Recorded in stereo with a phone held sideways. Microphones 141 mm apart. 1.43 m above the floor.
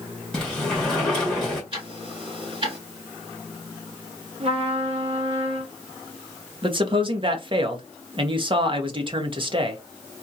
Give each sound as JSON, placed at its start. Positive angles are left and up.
{"t": 0.3, "sound": "a sliding door", "side_deg": 5, "distance_m": 2.0}
{"t": 1.7, "sound": "ticking", "side_deg": -35, "distance_m": 2.0}
{"t": 4.4, "sound": "a trumpet", "side_deg": -45, "distance_m": 0.9}
{"t": 6.6, "sound": "a man speaking", "side_deg": -40, "distance_m": 1.0}